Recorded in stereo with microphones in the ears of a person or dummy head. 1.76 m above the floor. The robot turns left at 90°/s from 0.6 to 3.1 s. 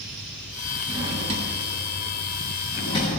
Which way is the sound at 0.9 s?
25° right (ahead or behind).